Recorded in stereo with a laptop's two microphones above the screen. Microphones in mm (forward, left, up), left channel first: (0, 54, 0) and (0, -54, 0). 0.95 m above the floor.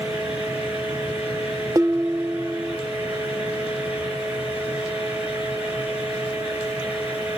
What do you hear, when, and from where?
0.0 s a fan: 15° right (ahead or behind), 7.5 m
1.8 s dishes clattering: 30° right (ahead or behind), 0.8 m